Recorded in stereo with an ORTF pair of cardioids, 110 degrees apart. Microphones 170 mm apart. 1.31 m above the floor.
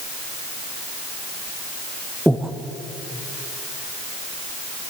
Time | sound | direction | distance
2.3 | breathing | straight ahead | 0.7 m